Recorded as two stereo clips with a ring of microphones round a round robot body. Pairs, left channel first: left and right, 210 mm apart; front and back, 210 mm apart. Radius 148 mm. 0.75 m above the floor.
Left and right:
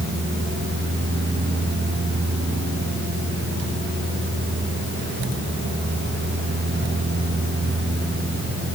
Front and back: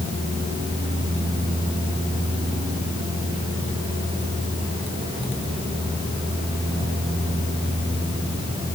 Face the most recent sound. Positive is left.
No sound to turn to.